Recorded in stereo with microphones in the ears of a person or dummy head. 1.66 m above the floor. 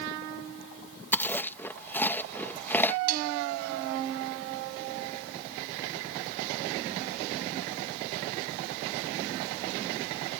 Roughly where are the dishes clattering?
Right.